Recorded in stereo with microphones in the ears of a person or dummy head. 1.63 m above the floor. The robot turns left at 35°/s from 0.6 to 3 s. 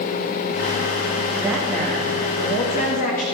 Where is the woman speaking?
165° right, 2.0 m; by 3.2 s 135° left, 2.0 m.